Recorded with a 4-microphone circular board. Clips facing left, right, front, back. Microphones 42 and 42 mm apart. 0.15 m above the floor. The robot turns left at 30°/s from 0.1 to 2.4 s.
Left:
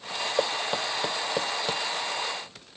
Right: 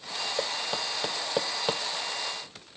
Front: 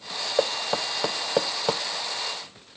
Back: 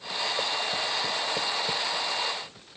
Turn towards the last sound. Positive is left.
turn(degrees=-40)